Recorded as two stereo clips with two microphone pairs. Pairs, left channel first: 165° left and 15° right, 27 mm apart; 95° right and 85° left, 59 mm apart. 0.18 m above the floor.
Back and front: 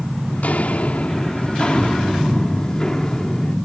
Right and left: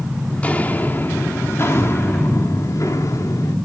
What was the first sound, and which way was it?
Footsteps, 165° right.